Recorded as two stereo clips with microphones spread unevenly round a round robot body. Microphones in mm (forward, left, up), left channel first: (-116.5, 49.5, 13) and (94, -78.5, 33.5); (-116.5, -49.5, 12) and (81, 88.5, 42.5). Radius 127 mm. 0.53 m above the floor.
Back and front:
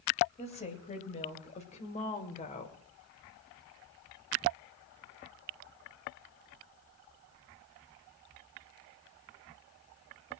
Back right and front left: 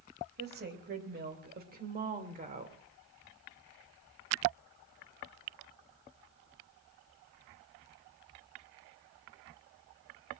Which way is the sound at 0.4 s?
85° left.